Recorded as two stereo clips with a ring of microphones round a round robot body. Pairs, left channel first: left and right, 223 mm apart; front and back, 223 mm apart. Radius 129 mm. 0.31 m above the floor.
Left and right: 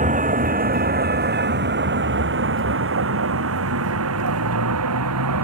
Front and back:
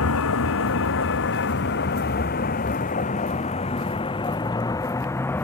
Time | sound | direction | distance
0.0 | a vehicle | 35° right | ?